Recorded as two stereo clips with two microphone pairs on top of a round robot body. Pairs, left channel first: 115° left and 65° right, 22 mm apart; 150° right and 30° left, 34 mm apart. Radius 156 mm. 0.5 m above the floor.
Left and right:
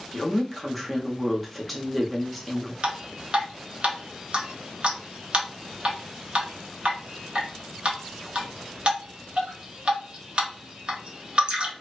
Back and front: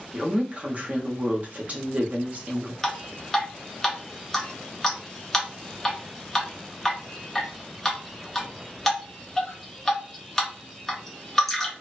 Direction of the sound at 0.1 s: 20° left.